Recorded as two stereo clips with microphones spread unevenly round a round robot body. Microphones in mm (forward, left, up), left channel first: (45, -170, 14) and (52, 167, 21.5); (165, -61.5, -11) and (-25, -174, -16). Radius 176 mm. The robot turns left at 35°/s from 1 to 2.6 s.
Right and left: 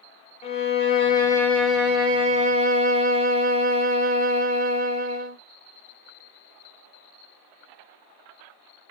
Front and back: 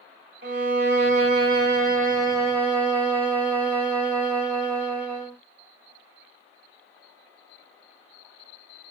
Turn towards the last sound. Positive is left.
turn(degrees=145)